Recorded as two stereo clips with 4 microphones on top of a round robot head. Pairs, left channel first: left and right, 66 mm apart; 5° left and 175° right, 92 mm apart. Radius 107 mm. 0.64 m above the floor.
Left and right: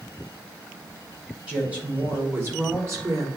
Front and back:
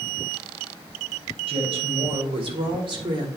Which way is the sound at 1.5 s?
170° right.